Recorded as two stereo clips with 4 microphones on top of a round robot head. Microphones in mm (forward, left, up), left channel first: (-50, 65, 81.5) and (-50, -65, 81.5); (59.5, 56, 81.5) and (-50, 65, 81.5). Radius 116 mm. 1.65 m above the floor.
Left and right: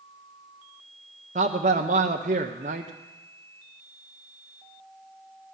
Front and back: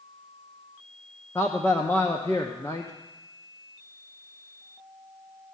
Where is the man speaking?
80° right, 0.5 m.